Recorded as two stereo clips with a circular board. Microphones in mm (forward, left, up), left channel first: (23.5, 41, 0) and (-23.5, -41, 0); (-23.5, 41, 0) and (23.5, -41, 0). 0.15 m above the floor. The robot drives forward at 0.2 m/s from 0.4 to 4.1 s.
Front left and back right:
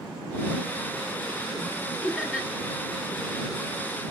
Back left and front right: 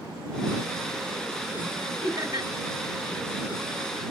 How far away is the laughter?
About 2.5 m.